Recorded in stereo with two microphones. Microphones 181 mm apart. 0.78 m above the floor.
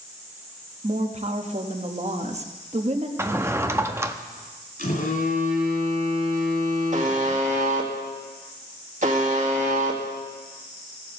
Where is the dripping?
No dripping in this recording.